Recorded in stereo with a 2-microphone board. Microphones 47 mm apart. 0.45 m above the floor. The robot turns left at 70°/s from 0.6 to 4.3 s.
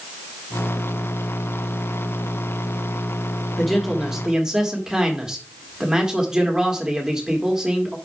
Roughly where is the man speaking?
Centre.